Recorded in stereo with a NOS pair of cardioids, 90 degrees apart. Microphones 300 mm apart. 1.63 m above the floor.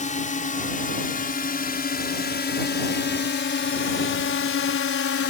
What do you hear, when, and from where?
0.0 s a drone: 25° left; by 5.3 s 50° left